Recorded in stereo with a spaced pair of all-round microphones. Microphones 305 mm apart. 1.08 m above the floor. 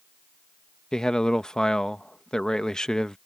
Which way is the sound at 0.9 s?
Centre (ahead or behind).